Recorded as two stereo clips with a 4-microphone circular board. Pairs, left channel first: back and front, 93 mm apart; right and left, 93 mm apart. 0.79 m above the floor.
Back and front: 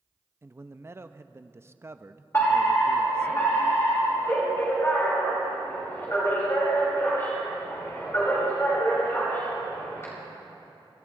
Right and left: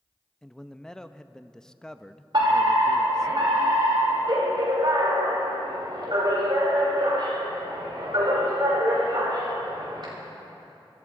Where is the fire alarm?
120° left, 5 m.